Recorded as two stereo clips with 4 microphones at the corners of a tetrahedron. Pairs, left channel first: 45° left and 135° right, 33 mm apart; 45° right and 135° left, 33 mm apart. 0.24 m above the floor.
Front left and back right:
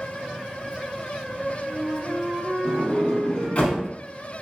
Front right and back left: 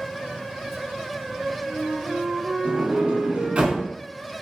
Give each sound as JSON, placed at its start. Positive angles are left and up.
{"t": 1.3, "sound": "a flute", "azimuth_deg": -160, "distance_m": 1.2}
{"t": 2.6, "sound": "a sliding door", "azimuth_deg": 95, "distance_m": 1.0}